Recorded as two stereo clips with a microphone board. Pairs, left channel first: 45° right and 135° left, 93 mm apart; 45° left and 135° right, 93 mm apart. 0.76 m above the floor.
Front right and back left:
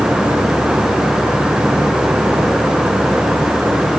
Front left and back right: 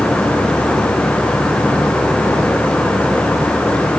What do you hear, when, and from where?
Only background noise.